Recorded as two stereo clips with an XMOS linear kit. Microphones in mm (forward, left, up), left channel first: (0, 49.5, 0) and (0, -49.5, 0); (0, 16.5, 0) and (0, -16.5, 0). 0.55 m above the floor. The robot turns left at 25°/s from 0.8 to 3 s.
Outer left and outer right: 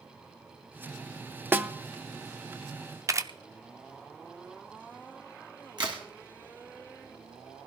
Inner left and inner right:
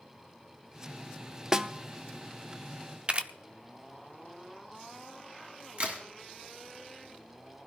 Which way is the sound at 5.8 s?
50° right (ahead or behind).